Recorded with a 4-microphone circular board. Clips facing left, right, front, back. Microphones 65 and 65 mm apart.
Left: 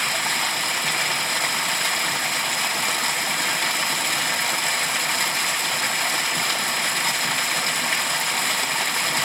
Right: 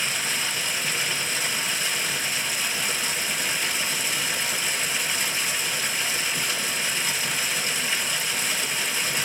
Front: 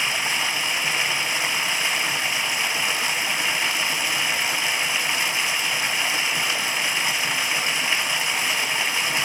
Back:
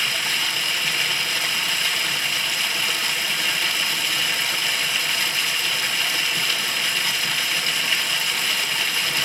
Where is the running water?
70° left, 2.5 m.